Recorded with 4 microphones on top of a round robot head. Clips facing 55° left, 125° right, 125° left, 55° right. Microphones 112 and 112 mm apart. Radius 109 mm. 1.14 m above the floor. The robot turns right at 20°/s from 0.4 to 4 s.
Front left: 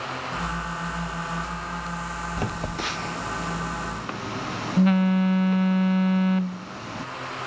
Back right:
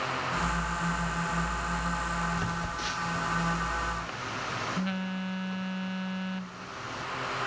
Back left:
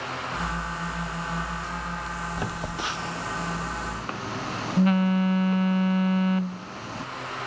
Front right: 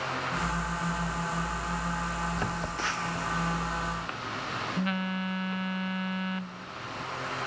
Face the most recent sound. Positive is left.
turn(degrees=75)